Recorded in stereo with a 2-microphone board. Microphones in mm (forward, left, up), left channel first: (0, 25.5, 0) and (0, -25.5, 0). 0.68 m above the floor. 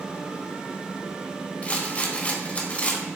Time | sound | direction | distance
1.6 | a rattle | 30° left (ahead or behind) | 1.0 m